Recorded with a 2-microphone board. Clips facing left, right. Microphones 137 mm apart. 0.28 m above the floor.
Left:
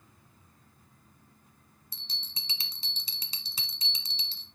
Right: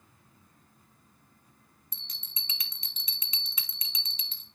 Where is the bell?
30° left (ahead or behind), 1.2 m.